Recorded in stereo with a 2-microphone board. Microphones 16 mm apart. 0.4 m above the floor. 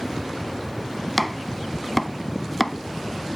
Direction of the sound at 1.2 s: 5° left (ahead or behind).